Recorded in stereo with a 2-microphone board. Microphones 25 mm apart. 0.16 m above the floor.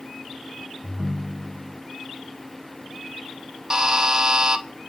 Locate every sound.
0.8 s a ringtone: 30° right (ahead or behind), 0.7 m
3.7 s a buzzer: 25° right (ahead or behind), 1.0 m